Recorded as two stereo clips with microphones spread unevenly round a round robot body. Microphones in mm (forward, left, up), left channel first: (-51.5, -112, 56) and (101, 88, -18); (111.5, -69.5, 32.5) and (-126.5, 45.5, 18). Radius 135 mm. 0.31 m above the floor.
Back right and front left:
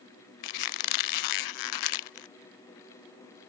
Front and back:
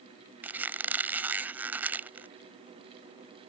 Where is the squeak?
125° right.